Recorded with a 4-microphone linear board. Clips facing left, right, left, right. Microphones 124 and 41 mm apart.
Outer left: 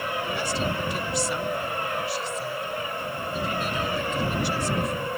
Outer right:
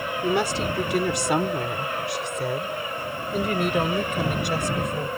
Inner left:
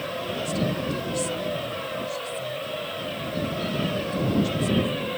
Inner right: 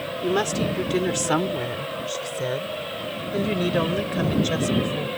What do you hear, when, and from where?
0.2 s a woman speaking: 70° right (ahead or behind); by 5.1 s 60° right (ahead or behind)